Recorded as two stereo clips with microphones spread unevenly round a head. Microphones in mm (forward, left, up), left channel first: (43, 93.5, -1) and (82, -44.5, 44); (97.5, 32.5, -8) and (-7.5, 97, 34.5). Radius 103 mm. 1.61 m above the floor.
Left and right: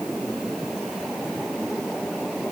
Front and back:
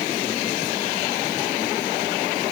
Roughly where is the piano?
No piano in this recording.